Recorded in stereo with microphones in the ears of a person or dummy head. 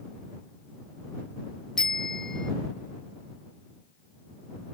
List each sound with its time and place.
1.8 s a bicycle bell: centre (ahead or behind)